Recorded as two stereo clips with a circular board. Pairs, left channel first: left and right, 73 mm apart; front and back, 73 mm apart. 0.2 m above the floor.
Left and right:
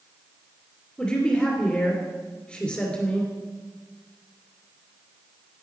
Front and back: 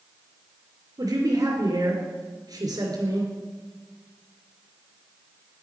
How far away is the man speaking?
About 2.5 m.